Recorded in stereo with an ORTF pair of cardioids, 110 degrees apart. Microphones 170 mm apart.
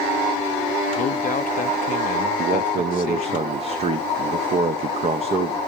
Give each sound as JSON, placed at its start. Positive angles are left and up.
{"t": 1.0, "sound": "a man speaking", "azimuth_deg": 55, "distance_m": 0.5}
{"t": 2.4, "sound": "a man speaking", "azimuth_deg": -40, "distance_m": 1.0}